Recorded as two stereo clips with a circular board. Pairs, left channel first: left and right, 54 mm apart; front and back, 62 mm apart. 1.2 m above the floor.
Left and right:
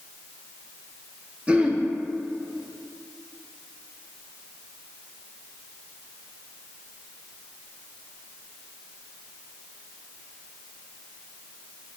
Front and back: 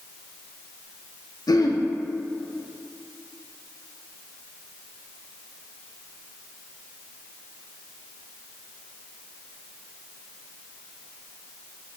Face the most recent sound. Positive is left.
turn(degrees=-20)